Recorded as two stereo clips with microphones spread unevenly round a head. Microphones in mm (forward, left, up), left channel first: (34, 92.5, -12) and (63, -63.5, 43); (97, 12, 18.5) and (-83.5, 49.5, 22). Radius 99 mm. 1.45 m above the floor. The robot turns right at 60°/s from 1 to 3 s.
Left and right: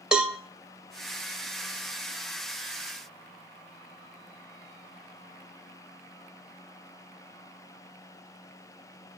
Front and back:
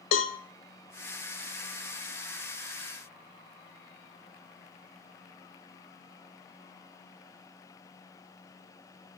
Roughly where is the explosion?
No explosion in this recording.